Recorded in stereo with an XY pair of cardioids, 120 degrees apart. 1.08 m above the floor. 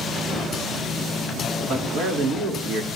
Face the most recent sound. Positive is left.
turn(degrees=-80)